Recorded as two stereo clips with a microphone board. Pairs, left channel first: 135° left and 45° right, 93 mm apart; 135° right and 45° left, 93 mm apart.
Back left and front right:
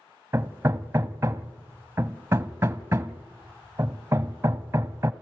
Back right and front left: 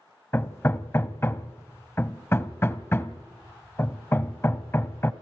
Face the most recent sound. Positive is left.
turn(degrees=-90)